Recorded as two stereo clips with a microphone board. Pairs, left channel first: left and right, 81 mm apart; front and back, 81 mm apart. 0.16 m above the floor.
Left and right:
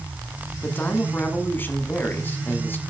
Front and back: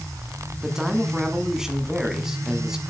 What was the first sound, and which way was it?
A man speaking, 105° left.